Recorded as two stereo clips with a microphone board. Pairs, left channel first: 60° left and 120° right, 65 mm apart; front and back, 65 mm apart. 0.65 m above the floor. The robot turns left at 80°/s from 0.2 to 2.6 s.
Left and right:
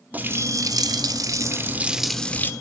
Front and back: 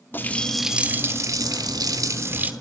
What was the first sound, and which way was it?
A running tap, 55° right.